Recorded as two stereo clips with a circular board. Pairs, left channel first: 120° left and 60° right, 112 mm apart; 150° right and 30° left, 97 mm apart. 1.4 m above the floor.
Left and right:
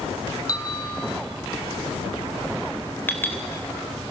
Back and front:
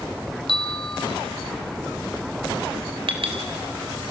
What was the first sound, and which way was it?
A bell, straight behind.